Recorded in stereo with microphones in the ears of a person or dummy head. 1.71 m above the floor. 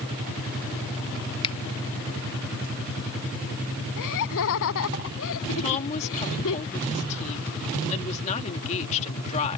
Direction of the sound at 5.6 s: 40° left (ahead or behind).